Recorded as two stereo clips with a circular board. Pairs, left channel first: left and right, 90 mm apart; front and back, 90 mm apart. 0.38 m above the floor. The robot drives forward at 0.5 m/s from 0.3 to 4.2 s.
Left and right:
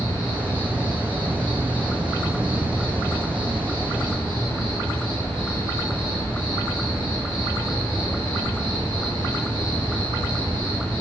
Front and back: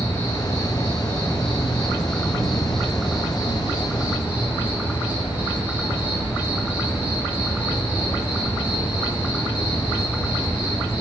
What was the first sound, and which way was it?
An insect, 60° right.